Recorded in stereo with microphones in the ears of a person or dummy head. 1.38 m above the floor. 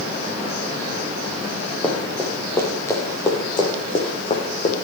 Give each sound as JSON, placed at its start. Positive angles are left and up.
{"t": 1.8, "sound": "running footsteps", "side_deg": 5, "distance_m": 5.0}